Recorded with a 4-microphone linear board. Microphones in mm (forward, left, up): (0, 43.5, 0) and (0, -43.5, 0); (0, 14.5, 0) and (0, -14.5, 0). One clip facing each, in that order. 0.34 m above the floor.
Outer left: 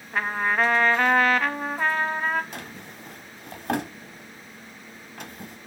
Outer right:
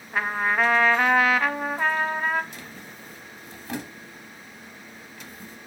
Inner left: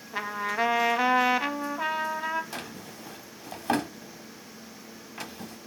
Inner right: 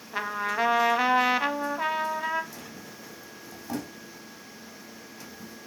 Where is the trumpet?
5° right (ahead or behind), 0.6 m.